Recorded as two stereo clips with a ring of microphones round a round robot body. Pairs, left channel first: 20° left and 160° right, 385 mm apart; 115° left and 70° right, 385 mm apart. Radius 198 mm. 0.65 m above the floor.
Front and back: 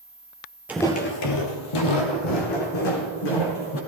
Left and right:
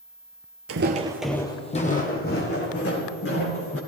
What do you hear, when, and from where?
0.7 s footsteps: 75° right, 0.7 m; by 3.8 s 50° left, 3 m